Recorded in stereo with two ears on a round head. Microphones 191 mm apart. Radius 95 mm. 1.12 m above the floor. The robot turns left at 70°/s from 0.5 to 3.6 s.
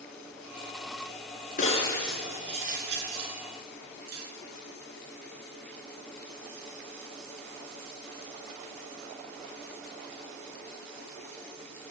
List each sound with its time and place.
1.6 s breaking glass: 40° left (ahead or behind), 7.5 m; by 4.3 s 75° right (ahead or behind), 7.5 m